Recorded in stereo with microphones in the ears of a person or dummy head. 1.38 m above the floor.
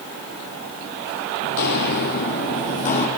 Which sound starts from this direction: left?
Footsteps, at 1.4 s.